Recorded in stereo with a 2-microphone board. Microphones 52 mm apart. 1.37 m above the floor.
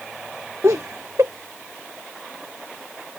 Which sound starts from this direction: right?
Laughter, at 0.6 s.